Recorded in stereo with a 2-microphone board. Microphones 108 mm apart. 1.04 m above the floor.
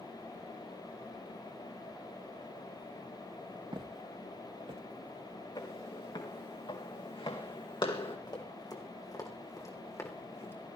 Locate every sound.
3.7 s footsteps: 45° right (ahead or behind), 2.5 m; by 4.8 s 55° right (ahead or behind), 2.0 m
5.5 s footsteps: 45° left (ahead or behind), 4.5 m; by 8.2 s 50° left (ahead or behind), 3 m
8.3 s running footsteps: 40° left (ahead or behind), 4 m; by 10.5 s 20° left (ahead or behind), 3.5 m